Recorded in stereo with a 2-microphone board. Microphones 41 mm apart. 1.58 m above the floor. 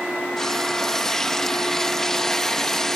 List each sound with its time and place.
0.4 s frying: 10° left (ahead or behind)